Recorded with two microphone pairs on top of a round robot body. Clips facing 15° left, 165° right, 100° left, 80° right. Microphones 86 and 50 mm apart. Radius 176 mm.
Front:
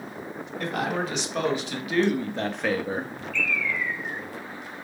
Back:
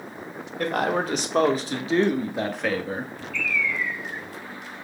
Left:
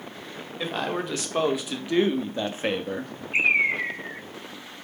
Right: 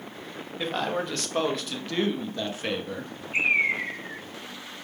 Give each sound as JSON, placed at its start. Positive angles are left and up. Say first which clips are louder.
{"t": 0.6, "sound": "a man speaking", "louder": "back 4 dB, even", "azimuth_deg": -175, "distance_m": 1.5}
{"t": 3.3, "sound": "a bird", "louder": "back 1 dB, left 2 dB", "azimuth_deg": 45, "distance_m": 1.2}